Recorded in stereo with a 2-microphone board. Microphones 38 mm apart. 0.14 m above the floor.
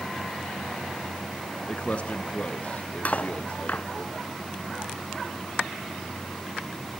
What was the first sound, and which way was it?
A man speaking, 30° left (ahead or behind).